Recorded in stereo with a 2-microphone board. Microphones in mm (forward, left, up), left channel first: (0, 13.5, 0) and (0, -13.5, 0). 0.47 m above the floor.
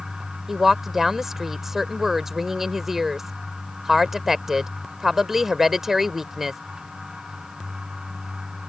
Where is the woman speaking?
15° right (ahead or behind).